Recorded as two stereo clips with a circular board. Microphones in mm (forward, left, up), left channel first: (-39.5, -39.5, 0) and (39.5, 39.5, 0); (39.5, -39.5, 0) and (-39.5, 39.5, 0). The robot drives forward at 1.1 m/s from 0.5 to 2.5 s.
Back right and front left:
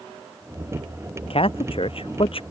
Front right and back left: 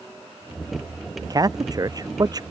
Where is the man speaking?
170° right.